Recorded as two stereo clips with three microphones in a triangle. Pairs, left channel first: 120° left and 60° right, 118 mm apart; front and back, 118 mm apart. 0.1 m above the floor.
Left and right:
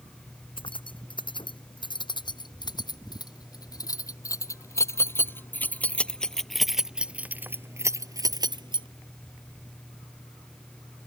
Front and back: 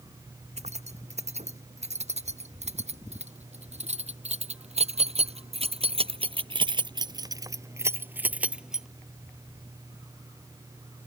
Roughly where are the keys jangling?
Behind.